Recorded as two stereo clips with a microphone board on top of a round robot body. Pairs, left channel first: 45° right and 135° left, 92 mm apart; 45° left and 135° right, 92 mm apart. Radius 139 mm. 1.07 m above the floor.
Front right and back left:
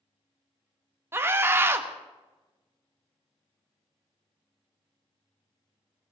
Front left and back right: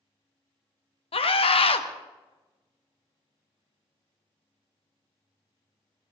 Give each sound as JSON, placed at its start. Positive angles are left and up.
{"t": 1.1, "sound": "a scream", "azimuth_deg": 70, "distance_m": 1.3}